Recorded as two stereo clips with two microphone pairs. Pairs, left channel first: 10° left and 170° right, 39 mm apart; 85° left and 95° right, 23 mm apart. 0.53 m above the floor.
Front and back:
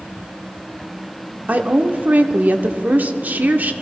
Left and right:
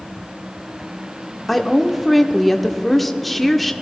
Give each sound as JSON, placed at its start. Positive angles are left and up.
{"t": 1.5, "sound": "a woman speaking", "azimuth_deg": 170, "distance_m": 1.0}